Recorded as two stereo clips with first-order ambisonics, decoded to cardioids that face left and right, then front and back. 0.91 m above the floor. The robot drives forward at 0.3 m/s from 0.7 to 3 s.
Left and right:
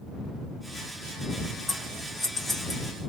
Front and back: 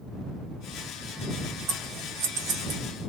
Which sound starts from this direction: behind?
Scissors, at 1.7 s.